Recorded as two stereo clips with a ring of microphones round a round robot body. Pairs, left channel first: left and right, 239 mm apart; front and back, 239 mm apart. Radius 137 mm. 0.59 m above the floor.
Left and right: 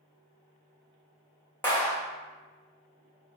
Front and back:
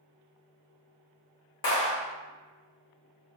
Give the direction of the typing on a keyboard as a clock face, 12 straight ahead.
No typing on a keyboard in this recording.